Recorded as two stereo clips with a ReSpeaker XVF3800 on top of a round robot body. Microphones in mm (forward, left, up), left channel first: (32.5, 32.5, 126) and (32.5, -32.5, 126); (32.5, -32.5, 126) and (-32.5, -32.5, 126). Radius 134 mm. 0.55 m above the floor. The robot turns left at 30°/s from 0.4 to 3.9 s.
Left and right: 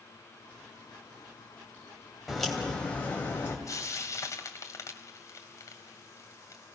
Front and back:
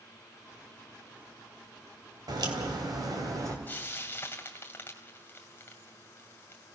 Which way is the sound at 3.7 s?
65° left.